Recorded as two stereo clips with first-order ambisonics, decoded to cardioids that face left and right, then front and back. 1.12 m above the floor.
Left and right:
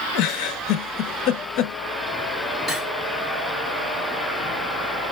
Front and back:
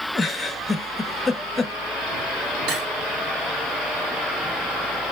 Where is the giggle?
80° left, 0.6 m.